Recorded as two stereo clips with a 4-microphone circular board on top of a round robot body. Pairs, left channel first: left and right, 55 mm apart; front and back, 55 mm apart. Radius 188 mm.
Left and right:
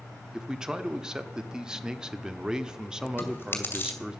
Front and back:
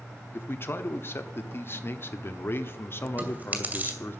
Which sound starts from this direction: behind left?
Chewing, at 3.2 s.